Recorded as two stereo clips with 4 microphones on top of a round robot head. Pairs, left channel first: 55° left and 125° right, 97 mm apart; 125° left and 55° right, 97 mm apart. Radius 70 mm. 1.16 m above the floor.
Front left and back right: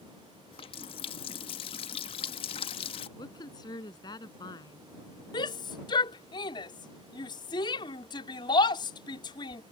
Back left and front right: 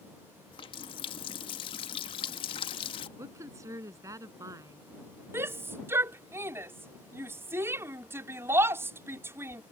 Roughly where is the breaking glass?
I don't hear breaking glass.